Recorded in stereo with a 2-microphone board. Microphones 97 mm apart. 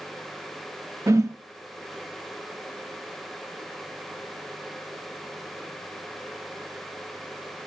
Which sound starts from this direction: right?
A whoosh, at 1.1 s.